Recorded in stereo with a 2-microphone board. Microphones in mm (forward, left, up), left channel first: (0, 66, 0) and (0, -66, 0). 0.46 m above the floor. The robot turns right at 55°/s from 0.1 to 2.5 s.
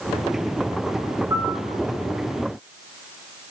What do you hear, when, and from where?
1.3 s a piano: 25° right (ahead or behind), 9.5 m; by 1.6 s 40° right (ahead or behind), 9.5 m